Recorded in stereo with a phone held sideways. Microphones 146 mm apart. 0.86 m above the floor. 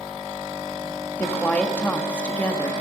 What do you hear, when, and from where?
1.2 s a woman speaking: 10° left (ahead or behind), 1.5 m